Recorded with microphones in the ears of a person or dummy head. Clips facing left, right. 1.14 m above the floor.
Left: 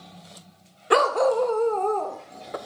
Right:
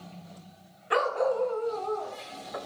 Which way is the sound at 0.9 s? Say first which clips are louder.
Left 6 dB; 60° left (ahead or behind).